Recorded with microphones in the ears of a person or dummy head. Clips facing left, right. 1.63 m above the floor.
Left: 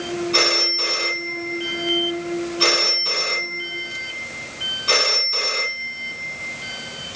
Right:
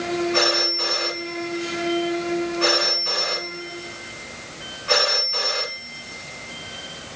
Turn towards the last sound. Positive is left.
turn(degrees=60)  # may be behind; listen again after turning